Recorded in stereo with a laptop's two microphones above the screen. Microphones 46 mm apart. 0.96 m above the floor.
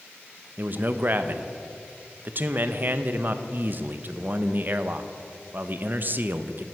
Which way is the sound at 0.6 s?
45° right (ahead or behind).